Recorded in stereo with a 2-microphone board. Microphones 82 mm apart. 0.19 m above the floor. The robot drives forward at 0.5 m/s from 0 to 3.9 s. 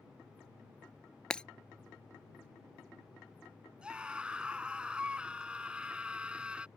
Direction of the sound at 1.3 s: 10° left (ahead or behind).